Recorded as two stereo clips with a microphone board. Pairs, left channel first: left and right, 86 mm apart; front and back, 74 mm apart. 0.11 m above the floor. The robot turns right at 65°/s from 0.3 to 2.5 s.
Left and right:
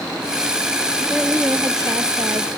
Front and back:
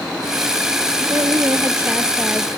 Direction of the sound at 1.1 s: 175° right.